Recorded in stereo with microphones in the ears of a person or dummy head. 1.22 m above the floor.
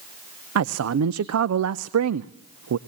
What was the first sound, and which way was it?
A man speaking, 85° right.